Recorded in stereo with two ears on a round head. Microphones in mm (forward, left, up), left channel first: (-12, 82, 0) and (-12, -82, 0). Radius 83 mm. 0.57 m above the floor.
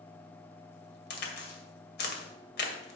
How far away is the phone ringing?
No phone ringing in this recording.